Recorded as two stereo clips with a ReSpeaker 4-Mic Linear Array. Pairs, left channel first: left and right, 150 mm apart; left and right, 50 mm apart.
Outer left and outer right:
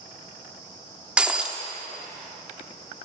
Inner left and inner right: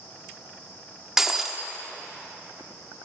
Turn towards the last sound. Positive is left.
turn(degrees=-5)  # may be behind; listen again after turning